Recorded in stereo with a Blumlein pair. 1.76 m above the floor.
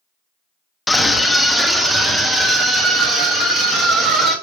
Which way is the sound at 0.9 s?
5° left.